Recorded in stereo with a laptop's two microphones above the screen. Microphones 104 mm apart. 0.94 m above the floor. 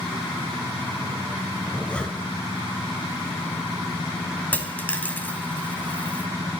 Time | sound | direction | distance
1.6 | a zipper | 10° left (ahead or behind) | 1.7 m
4.5 | a dropped coin | 15° left (ahead or behind) | 0.9 m